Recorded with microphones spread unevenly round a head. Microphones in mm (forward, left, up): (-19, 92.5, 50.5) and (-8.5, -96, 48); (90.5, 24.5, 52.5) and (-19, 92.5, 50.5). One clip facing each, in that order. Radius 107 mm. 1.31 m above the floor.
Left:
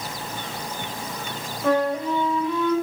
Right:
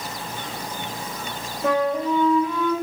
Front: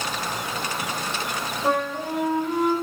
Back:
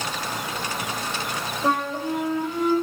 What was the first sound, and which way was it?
A flute, 150° right.